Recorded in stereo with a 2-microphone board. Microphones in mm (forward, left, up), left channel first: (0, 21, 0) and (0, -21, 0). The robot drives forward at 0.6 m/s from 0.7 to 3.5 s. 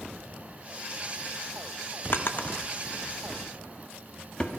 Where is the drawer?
60° left (ahead or behind), 0.6 m; by 4.5 s 25° left (ahead or behind), 1.2 m.